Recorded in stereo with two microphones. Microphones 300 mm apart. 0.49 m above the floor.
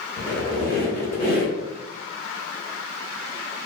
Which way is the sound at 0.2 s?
30° left (ahead or behind).